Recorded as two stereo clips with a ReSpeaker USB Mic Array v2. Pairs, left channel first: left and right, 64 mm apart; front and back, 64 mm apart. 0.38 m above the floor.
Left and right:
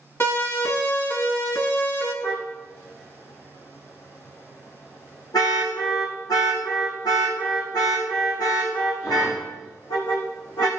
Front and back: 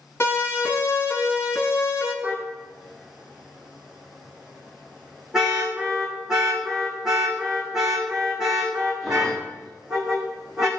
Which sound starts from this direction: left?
A car horn, at 2.2 s.